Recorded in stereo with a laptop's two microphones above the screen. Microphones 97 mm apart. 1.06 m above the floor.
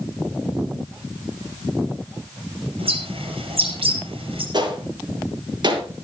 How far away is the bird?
About 5.5 m.